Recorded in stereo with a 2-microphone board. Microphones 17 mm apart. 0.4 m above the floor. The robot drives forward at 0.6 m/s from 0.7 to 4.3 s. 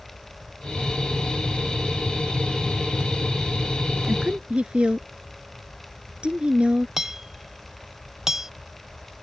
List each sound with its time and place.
4.1 s a woman speaking: 75° right (ahead or behind)
7.0 s hammering: 30° right (ahead or behind)